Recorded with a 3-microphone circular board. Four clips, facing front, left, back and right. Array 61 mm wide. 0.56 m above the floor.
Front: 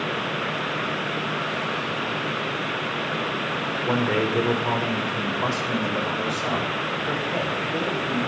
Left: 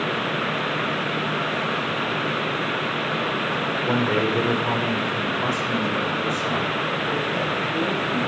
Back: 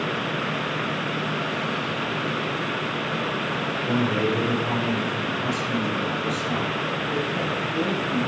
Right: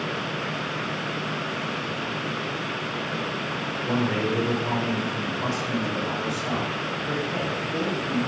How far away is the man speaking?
About 2 m.